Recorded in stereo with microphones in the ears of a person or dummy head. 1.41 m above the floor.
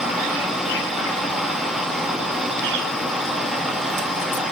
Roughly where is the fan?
Centre.